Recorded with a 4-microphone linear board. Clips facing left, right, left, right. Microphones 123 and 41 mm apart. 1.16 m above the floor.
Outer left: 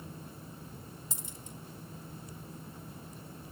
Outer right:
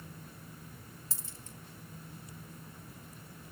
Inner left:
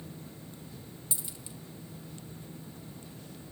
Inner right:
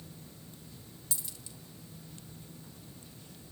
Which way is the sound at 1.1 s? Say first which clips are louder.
Outer left 4 dB, inner left 1 dB; 20° left (ahead or behind).